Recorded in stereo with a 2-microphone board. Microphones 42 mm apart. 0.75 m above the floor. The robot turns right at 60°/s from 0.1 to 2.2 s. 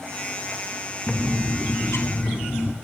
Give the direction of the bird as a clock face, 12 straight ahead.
11 o'clock.